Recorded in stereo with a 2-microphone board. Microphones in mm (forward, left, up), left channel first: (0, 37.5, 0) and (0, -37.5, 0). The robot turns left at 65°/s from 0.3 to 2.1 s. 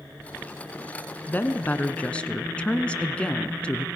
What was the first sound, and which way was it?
A woman speaking, 25° left (ahead or behind).